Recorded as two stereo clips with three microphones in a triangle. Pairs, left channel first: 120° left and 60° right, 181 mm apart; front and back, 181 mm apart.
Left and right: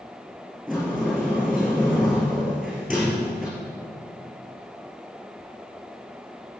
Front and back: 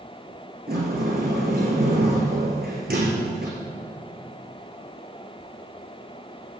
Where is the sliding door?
145° right, 5.5 m.